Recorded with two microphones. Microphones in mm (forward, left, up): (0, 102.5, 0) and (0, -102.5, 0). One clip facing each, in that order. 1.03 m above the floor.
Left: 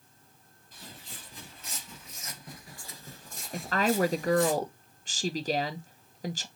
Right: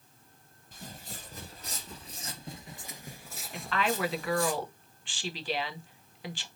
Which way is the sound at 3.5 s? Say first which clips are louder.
Left 4 dB; 40° left (ahead or behind).